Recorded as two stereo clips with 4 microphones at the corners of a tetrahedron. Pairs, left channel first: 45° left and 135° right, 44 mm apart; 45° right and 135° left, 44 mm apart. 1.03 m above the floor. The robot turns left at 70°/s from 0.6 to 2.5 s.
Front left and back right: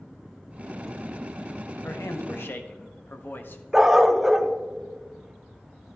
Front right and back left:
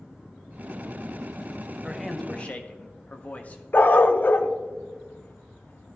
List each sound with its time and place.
1.8 s a man speaking: 55° left, 1.0 m; by 3.6 s 10° left, 1.0 m
3.7 s a dog barking: 55° right, 0.6 m